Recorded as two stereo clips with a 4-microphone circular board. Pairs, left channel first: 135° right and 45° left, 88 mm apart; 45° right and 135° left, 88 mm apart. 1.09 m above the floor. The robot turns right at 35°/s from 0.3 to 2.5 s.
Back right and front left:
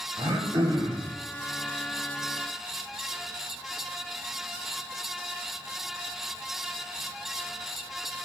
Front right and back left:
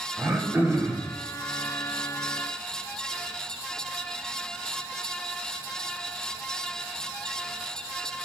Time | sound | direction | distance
0.2 | throat clearing | 55° left | 2.5 m